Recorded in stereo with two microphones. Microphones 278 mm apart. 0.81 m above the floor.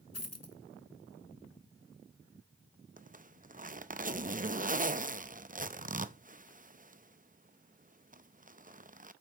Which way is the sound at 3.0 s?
30° right (ahead or behind).